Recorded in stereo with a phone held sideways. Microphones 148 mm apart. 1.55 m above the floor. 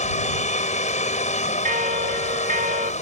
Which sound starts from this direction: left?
A machine running, at 0.0 s.